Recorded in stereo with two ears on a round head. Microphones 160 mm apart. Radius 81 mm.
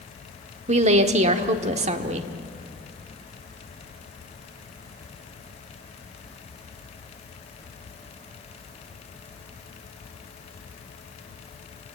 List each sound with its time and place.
0.7 s a woman speaking: 40° right (ahead or behind), 1.3 m